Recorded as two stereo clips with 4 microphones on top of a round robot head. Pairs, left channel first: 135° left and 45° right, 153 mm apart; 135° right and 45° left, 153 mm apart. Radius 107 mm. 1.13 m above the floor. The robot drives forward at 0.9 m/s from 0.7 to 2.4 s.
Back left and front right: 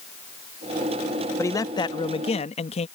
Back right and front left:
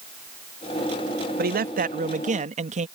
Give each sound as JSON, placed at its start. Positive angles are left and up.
{"t": 1.4, "sound": "a man speaking", "azimuth_deg": 60}